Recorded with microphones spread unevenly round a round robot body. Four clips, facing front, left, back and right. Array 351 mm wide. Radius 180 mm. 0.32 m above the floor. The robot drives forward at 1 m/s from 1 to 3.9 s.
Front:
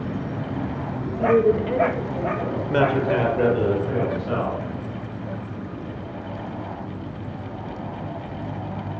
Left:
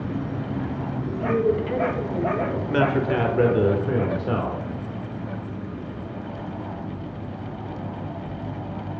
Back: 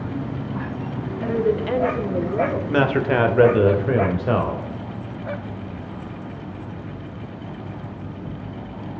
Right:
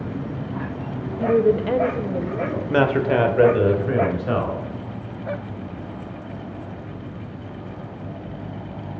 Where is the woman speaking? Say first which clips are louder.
Right 5 dB, front 4 dB; 45° right, 1.2 m; by 2.6 s 145° right, 1.4 m.